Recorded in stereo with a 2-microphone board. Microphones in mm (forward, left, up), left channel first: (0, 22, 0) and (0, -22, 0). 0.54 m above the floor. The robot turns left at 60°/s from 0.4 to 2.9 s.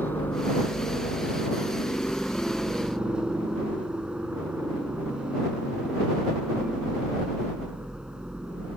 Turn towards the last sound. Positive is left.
turn(degrees=-15)